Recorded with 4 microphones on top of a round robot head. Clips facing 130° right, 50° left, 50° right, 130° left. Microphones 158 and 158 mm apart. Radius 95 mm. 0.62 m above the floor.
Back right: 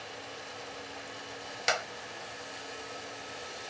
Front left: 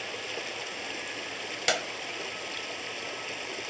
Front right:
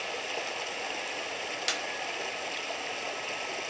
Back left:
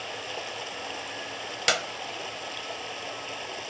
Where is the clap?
110° left.